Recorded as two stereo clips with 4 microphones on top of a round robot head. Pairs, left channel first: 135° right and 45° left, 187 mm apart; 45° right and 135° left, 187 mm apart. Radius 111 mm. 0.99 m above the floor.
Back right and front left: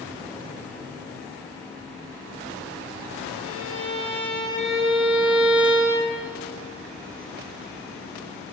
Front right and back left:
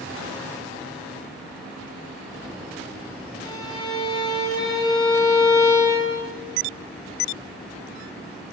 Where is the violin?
25° left, 8 m.